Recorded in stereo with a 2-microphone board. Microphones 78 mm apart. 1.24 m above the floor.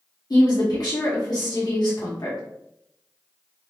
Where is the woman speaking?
55° left (ahead or behind), 1.0 m.